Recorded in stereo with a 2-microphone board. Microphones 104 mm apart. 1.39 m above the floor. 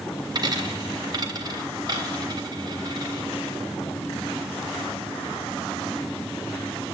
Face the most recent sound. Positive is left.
turn(degrees=-40)  # may be behind; listen again after turning